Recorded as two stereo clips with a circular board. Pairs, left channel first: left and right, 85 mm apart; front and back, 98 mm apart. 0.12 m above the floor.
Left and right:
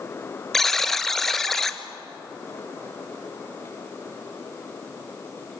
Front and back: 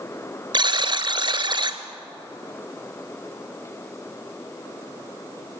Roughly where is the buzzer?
Behind.